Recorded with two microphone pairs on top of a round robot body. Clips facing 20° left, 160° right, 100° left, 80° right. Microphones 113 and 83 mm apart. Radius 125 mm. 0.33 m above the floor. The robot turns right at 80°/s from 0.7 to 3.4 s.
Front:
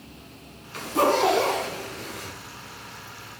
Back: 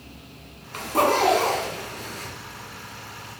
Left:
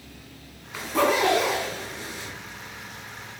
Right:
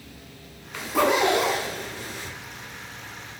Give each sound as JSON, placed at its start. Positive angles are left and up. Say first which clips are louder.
{"t": 0.7, "sound": "a zipper", "louder": "back 1 dB, right 1 dB", "azimuth_deg": 180, "distance_m": 1.2}